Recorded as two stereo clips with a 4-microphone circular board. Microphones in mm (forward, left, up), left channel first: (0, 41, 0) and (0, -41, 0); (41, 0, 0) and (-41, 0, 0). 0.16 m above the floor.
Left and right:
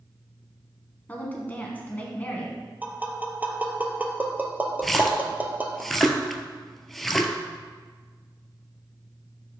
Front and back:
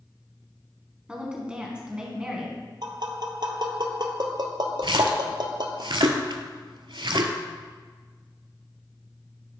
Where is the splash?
175° left, 0.5 m.